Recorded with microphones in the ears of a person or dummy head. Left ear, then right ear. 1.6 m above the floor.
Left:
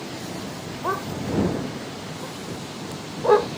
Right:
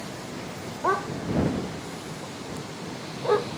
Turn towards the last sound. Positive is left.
turn(degrees=35)  # may be behind; listen again after turning